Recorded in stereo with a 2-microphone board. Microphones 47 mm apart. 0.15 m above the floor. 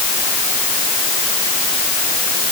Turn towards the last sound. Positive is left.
No sound to turn to.